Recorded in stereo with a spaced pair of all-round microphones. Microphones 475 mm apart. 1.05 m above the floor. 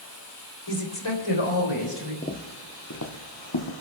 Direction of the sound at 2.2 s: 15° left (ahead or behind).